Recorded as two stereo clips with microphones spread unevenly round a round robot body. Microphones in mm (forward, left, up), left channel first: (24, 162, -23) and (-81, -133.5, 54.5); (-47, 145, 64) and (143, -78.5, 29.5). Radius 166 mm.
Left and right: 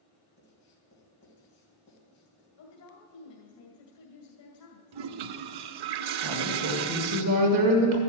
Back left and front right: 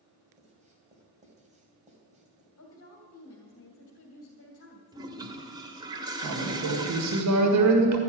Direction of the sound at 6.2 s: 70° right.